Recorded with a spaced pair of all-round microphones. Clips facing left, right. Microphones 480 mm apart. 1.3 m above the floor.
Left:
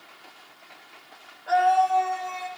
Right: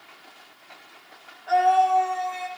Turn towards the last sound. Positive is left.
turn(degrees=75)  # may be behind; listen again after turning